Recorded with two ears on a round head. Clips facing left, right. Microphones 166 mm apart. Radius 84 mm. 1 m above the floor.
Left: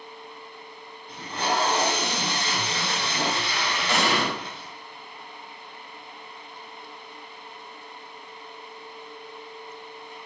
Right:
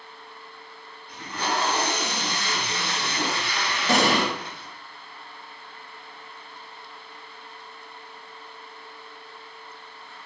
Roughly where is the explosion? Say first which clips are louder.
Right 4 dB; right.